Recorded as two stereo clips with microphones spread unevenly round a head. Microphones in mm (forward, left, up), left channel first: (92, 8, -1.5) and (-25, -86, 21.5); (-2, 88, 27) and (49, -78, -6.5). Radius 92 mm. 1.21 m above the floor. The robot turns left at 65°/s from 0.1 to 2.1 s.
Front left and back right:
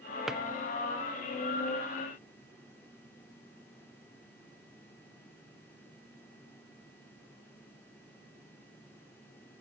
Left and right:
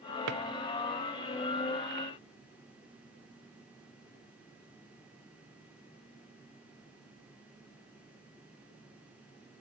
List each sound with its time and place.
0.3 s a drawer: 60° right, 0.5 m; by 0.4 s 70° right, 0.5 m